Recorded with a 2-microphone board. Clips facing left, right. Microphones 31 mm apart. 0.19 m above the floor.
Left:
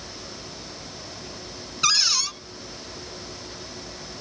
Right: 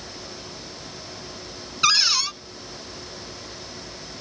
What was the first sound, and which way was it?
A cupboard door, 20° right (ahead or behind).